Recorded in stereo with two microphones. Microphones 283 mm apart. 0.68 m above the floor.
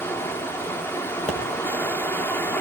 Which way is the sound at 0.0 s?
10° left (ahead or behind).